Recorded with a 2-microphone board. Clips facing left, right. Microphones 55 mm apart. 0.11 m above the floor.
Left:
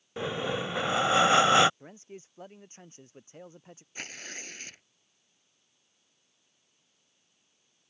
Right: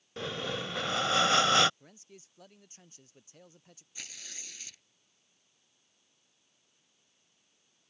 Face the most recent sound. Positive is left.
turn(degrees=45)  # may be behind; listen again after turning